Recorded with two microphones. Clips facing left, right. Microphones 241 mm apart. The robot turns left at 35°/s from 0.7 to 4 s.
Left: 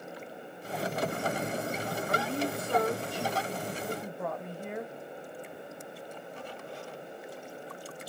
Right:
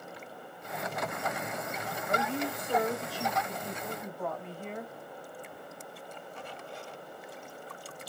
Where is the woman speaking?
135° right, 1.2 m; by 4.9 s 160° left, 1.2 m.